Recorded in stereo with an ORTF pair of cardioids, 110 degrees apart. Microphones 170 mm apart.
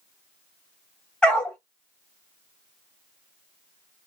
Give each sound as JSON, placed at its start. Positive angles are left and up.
{"t": 1.2, "sound": "a dog barking", "azimuth_deg": 5, "distance_m": 1.1}